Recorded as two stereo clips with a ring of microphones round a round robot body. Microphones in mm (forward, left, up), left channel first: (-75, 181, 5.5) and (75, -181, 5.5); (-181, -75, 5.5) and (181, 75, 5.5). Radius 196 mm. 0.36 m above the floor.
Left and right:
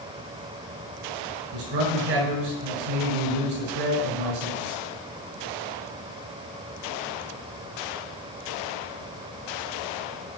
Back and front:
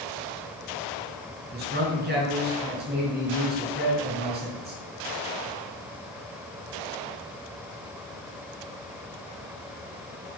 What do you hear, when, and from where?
1.5 s a man speaking: 45° right, 5 m